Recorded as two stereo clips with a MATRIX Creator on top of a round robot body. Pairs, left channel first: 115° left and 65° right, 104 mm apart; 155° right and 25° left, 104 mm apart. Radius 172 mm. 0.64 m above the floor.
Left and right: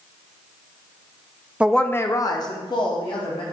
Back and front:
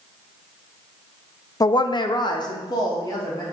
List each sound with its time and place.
1.6 s a woman speaking: 135° right, 0.6 m; by 3.4 s 150° left, 2 m